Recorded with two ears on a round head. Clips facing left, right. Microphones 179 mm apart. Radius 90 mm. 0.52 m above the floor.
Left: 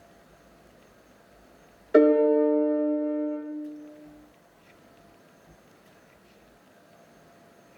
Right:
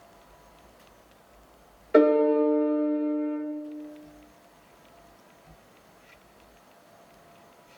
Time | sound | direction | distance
1.9 | a piano | 10° left (ahead or behind) | 0.8 m